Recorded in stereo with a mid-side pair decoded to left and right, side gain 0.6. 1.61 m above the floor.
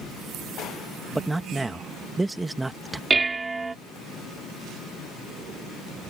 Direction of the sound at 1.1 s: 15° right.